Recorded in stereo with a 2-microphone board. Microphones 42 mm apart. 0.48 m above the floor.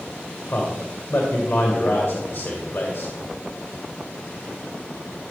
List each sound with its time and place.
0.5 s a man speaking: 50° left (ahead or behind), 2.5 m